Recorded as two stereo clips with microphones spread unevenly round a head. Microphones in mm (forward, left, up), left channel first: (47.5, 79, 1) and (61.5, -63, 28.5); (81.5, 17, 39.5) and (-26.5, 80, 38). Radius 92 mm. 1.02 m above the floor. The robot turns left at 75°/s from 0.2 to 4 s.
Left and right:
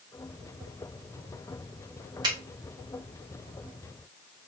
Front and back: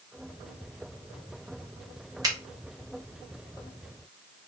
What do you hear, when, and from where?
2.2 s a finger snap: 155° right, 0.6 m; by 2.4 s 160° right, 0.6 m